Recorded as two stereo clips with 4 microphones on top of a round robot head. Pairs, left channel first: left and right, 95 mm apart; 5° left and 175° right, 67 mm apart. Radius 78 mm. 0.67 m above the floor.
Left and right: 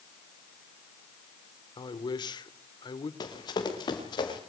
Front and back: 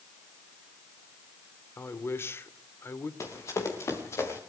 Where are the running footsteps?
50° left, 7.5 m.